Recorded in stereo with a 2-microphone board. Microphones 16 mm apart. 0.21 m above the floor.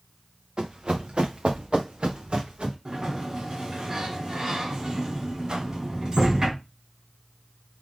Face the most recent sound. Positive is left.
turn(degrees=-45)  # may be behind; listen again after turning